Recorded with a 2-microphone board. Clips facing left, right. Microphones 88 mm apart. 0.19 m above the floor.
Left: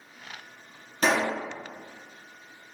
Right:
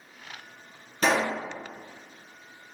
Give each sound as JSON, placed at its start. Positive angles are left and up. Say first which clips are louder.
{"t": 1.0, "sound": "a pop", "louder": "even", "side_deg": 5, "distance_m": 1.6}